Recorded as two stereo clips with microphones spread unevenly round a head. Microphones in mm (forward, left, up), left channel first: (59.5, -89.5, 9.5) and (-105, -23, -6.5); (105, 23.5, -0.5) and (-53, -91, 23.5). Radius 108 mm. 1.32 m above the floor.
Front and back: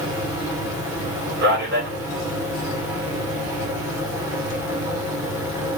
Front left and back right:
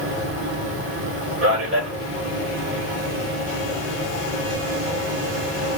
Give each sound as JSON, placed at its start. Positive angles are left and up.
{"t": 0.0, "sound": "a fan", "azimuth_deg": -130, "distance_m": 2.5}
{"t": 1.4, "sound": "a man speaking", "azimuth_deg": 175, "distance_m": 3.0}